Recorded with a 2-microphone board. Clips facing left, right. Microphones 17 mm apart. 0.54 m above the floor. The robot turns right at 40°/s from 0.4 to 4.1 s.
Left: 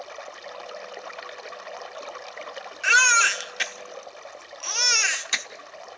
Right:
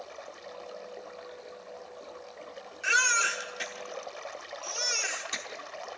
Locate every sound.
0.0 s running water: 35° left, 0.9 m; by 6.0 s straight behind, 0.9 m
2.8 s a baby crying: 30° left (ahead or behind), 0.9 m; by 5.5 s 50° left (ahead or behind), 0.9 m